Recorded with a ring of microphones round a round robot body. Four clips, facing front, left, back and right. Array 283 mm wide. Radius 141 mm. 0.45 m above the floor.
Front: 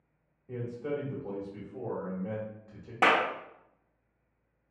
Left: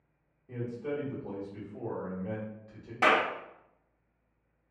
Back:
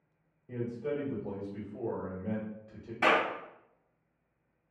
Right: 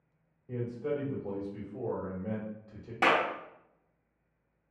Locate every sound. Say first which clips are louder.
0.5 s a man speaking: right 2 dB, even; 30° right, 1.2 m
3.0 s a clap: left 1 dB, front 2 dB; 10° right, 0.7 m